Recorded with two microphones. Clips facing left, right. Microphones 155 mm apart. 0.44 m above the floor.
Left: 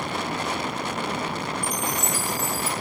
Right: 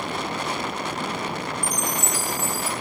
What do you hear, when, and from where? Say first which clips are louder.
1.6 s a chime: even; 15° right (ahead or behind), 1.3 m